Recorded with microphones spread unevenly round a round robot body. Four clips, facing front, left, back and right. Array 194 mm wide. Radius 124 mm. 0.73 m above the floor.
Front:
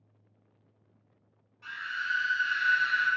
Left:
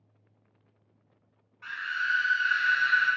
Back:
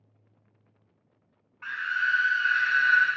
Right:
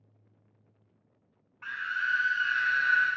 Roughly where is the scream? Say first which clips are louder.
Even, back 6 dB; behind right.